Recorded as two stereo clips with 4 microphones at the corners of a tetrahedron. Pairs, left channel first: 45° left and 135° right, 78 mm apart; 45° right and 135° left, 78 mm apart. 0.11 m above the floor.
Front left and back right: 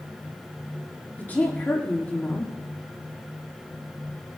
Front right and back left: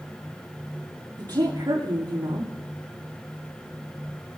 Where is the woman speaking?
115° left, 5.5 m.